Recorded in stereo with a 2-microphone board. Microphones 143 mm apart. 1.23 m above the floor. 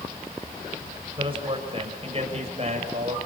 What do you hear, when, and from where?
1.2 s a man speaking: 40° right (ahead or behind), 7 m; by 3.2 s 50° right (ahead or behind), 7 m